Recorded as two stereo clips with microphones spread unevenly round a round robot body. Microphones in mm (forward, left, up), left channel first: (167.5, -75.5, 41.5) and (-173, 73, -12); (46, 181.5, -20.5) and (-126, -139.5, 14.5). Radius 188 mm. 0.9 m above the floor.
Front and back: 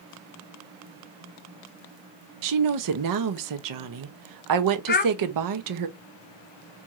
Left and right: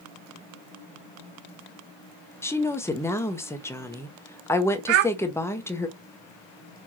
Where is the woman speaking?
140° left, 0.8 m.